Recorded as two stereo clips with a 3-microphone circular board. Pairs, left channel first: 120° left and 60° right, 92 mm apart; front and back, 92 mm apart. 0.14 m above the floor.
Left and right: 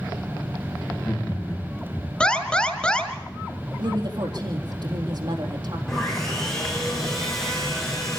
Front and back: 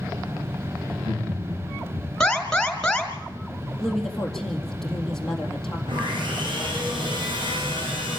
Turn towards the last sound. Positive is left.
turn(degrees=-155)